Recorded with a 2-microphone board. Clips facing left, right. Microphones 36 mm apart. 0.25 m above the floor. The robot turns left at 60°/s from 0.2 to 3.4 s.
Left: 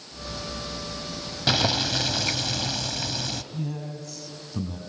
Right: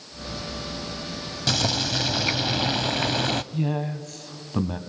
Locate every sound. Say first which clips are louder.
1.5 s boiling: left 1 dB; 30° left, 0.5 m; by 3.4 s 85° right, 0.5 m
3.5 s a man speaking: right 6 dB; 45° right (ahead or behind), 1.6 m